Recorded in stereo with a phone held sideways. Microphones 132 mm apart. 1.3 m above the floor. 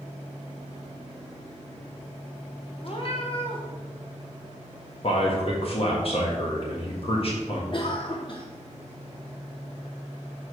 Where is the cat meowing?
50° left (ahead or behind), 1.2 m.